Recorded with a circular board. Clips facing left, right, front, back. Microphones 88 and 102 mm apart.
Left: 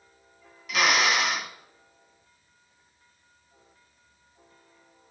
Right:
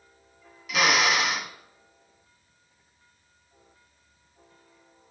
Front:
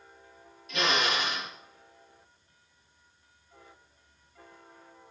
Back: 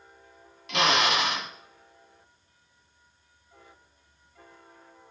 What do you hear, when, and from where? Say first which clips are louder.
0.7 s a drill: right 1 dB, back 4 dB; straight behind, 1.1 m